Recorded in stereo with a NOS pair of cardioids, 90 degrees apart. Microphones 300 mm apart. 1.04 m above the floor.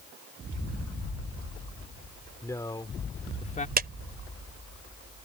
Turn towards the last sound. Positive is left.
turn(degrees=-30)